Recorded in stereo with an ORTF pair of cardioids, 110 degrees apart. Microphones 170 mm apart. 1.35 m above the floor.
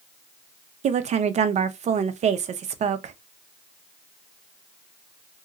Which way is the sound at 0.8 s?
45° right.